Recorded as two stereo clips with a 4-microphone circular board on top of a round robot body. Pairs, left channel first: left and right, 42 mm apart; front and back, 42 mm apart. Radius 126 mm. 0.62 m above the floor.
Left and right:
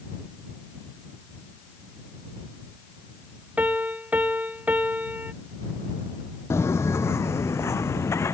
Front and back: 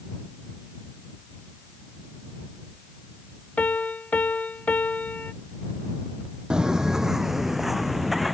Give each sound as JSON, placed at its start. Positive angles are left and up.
{"t": 3.6, "sound": "a piano", "azimuth_deg": -45}
{"t": 6.5, "sound": "footsteps", "azimuth_deg": 110}